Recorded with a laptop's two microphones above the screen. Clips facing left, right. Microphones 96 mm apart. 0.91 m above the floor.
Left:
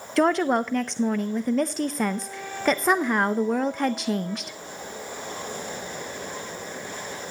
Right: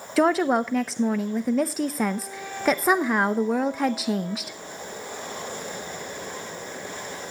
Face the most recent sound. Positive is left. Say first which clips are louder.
# right 1 dB
turn(degrees=-5)  # may be behind; listen again after turning